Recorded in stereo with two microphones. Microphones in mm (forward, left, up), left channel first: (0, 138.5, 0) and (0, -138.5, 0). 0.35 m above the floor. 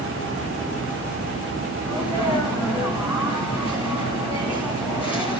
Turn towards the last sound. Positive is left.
turn(degrees=-5)  # may be behind; listen again after turning